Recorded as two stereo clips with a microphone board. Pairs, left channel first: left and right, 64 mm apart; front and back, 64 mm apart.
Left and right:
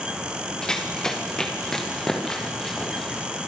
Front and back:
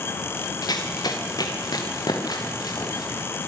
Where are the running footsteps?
10° left, 3.5 m; by 3.3 s 5° left, 5.5 m.